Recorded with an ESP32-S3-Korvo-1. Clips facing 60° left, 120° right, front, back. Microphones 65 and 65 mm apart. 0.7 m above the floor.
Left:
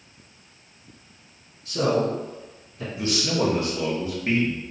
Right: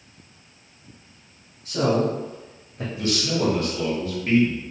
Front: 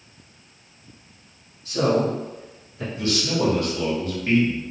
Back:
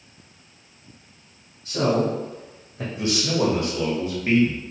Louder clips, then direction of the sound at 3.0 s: Even, back 1 dB; 120° left.